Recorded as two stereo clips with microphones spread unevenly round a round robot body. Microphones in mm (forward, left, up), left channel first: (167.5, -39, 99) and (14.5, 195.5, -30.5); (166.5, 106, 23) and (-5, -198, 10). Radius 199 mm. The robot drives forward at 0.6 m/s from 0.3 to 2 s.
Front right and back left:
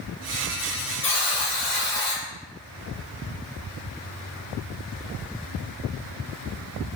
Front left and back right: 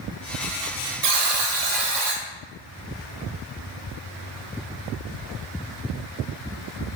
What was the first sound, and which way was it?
A buzzer, 90° right.